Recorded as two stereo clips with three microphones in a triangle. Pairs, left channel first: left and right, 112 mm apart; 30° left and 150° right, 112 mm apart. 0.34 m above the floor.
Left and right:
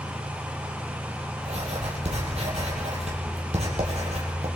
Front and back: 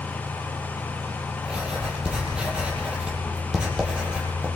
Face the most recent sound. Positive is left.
turn(degrees=-70)